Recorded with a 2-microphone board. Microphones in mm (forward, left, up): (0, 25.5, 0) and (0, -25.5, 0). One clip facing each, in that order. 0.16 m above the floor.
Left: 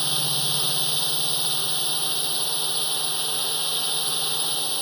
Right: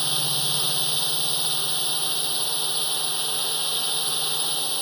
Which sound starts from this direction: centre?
A drone, at 0.0 s.